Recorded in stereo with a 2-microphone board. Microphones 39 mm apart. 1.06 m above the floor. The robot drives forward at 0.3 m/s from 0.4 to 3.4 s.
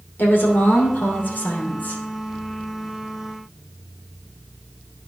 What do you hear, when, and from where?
0.2 s a woman speaking: 65° left (ahead or behind), 3 m; by 2.0 s 55° left (ahead or behind), 3.5 m